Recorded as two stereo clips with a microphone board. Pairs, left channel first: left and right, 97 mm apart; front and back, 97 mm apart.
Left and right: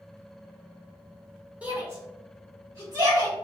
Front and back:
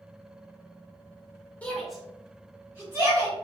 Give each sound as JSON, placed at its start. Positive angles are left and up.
{"t": 1.6, "sound": "a shout", "azimuth_deg": -40, "distance_m": 1.3}